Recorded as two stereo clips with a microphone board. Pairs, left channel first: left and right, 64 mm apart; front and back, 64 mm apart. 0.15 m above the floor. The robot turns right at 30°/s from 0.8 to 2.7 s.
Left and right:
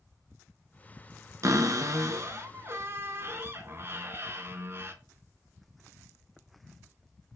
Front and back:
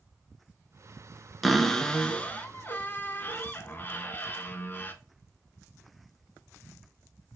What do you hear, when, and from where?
1.4 s a cupboard door: 90° right, 0.5 m; by 4.9 s 50° right, 0.5 m